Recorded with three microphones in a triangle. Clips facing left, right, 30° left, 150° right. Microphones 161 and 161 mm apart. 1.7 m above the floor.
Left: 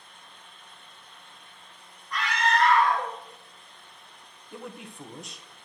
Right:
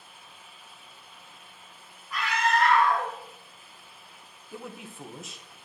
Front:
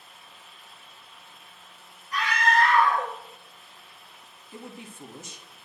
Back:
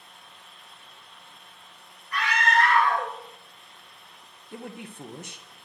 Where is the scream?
175° right, 5 m.